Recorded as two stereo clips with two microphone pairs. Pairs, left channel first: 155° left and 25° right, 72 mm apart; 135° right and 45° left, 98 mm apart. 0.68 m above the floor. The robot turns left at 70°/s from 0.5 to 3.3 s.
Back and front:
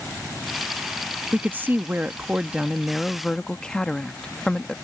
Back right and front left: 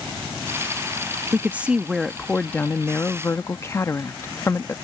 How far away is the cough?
No cough in this recording.